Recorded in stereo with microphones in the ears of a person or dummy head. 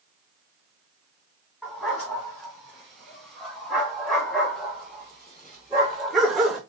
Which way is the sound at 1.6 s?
5° left (ahead or behind).